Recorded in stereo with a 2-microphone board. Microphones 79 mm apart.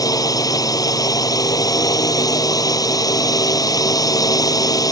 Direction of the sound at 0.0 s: 55° left (ahead or behind).